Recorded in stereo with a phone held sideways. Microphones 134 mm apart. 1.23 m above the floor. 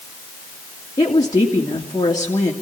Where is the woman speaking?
30° left (ahead or behind), 2.5 m.